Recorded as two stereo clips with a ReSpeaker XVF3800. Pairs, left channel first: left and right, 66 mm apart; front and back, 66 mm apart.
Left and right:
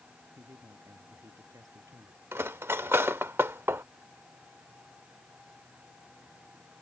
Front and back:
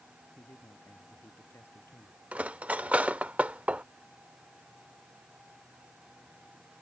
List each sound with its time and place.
0.4 s a man speaking: 55° right
2.3 s cutlery clinking: 120° right